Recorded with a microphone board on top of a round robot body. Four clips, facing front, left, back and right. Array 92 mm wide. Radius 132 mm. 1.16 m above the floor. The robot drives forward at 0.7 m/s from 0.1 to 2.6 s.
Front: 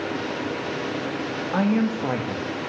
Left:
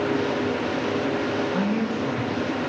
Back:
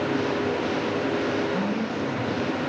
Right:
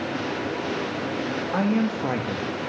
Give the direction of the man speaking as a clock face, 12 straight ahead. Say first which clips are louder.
Right 1 dB, front 4 dB; 1 o'clock.